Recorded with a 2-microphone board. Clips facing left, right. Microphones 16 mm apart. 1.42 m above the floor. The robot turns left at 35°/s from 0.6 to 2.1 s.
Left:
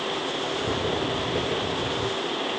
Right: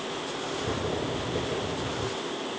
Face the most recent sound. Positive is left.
No sound to turn to.